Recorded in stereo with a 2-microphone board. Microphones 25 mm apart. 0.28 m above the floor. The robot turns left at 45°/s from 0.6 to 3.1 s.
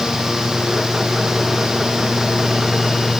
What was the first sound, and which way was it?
Only background noise.